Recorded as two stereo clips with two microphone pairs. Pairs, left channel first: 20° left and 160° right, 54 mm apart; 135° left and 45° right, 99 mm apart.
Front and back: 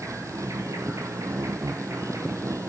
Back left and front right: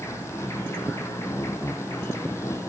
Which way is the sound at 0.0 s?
165° right.